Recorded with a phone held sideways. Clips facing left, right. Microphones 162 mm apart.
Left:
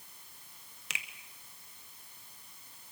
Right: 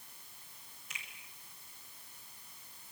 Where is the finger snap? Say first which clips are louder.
Left 6 dB; 80° left, 1.6 m.